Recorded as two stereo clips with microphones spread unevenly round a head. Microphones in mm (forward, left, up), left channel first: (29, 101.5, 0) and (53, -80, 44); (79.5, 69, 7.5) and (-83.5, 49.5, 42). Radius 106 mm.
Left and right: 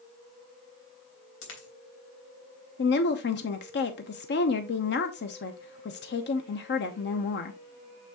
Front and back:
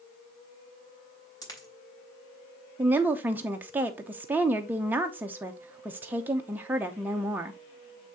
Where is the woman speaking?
100° left, 0.9 m.